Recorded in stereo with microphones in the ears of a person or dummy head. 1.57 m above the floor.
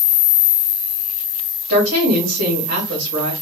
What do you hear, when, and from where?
1.7 s a woman speaking: 60° right (ahead or behind), 1.8 m